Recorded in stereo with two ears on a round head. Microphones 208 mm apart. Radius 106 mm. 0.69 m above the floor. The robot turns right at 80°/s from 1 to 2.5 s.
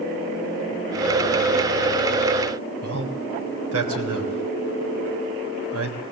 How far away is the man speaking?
About 3.5 m.